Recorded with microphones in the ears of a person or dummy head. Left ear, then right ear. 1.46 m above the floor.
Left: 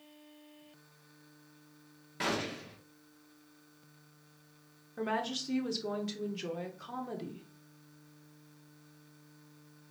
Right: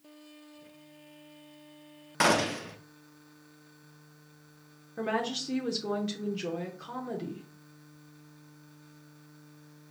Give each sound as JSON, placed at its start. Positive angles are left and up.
{"t": 2.2, "sound": "a gunshot", "side_deg": -35, "distance_m": 0.5}
{"t": 5.0, "sound": "a woman speaking", "side_deg": 5, "distance_m": 0.6}